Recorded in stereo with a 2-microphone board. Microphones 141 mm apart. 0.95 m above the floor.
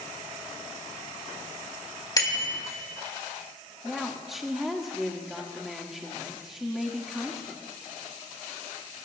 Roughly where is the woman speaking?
Centre.